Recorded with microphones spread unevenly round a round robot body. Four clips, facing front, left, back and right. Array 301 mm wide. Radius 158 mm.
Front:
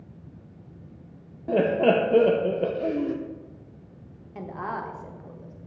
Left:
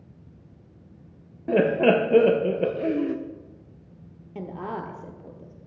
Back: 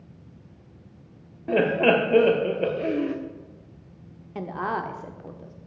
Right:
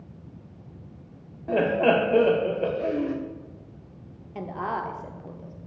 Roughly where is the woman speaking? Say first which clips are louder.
Right 3 dB, back 4 dB; behind left.